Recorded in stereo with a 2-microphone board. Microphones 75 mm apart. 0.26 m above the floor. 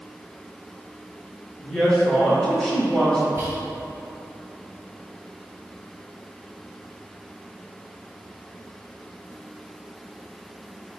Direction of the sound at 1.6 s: 10° left (ahead or behind).